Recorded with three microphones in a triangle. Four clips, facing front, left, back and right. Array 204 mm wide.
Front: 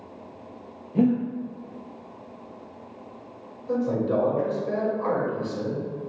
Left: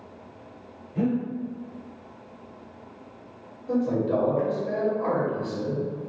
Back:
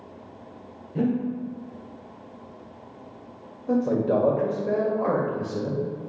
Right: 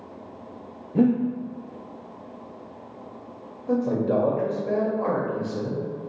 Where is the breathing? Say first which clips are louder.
Right 5 dB, front 3 dB; 75° right, 0.9 m.